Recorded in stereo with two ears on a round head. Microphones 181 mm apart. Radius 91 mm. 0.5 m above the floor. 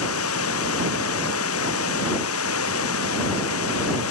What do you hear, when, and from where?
0.0 s running water: 75° left (ahead or behind)